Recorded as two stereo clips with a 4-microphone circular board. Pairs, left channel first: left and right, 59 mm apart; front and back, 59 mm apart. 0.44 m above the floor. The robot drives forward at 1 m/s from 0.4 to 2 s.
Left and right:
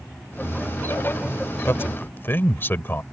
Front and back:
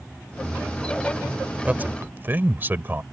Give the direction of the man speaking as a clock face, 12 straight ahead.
8 o'clock.